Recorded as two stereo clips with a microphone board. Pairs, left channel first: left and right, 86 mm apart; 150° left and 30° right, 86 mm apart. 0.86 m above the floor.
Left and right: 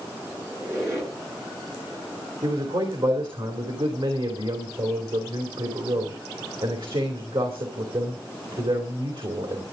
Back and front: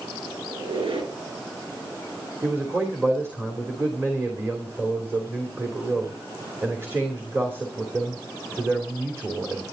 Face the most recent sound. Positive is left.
turn(degrees=-90)